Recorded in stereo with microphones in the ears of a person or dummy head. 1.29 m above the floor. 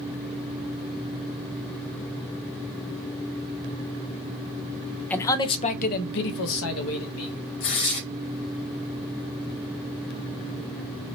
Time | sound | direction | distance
5.1 | a man speaking | 10° left (ahead or behind) | 0.6 m
7.6 | tearing paper | 60° left (ahead or behind) | 1.3 m